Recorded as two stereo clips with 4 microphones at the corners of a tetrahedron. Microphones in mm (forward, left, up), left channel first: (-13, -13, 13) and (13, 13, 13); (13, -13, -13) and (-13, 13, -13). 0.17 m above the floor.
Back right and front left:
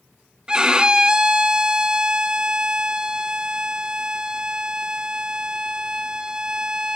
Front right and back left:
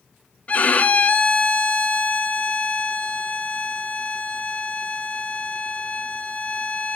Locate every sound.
0.5 s a violin: 20° right, 0.7 m